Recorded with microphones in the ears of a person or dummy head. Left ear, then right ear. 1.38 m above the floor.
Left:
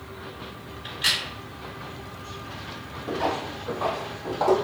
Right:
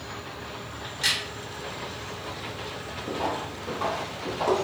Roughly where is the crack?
Right.